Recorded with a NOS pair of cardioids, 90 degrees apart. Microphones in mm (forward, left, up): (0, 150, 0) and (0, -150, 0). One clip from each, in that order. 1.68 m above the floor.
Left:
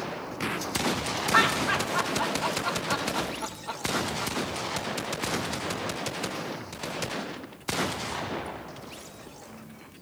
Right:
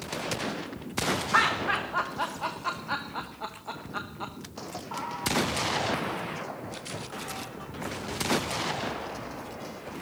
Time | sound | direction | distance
1.3 | laughter | straight ahead | 1.1 m